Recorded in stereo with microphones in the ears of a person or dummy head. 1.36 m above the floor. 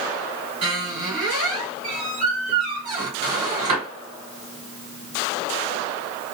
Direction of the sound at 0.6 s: 40° right (ahead or behind).